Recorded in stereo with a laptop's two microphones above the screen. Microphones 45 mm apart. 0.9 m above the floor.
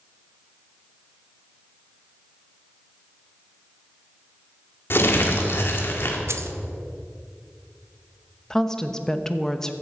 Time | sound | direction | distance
4.9 | crumpling | 55° left (ahead or behind) | 1.5 m
6.3 | keys jangling | 75° right (ahead or behind) | 0.8 m
8.5 | a woman speaking | 10° left (ahead or behind) | 0.9 m